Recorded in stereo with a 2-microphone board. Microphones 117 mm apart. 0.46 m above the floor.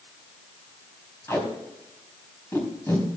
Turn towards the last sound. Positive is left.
turn(degrees=25)  # may be behind; listen again after turning